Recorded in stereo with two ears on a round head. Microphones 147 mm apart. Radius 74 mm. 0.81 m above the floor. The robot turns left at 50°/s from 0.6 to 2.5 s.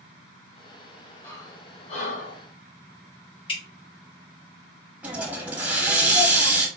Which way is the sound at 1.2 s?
15° left (ahead or behind).